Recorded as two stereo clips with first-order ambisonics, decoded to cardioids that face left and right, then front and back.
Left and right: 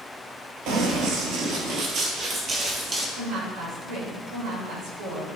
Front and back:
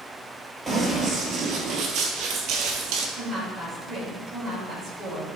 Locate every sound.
0.7 s running footsteps: 95° right, 1.5 m; by 3.1 s 160° right, 1.8 m
3.2 s a woman speaking: 100° right, 3.5 m